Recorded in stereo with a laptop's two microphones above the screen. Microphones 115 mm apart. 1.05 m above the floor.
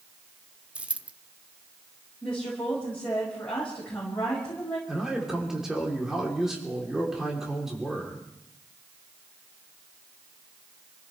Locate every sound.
0.8 s a dropped coin: 10° right (ahead or behind), 0.7 m
2.2 s a woman speaking: 10° left (ahead or behind), 5.5 m
4.9 s a man speaking: 5° right (ahead or behind), 3.5 m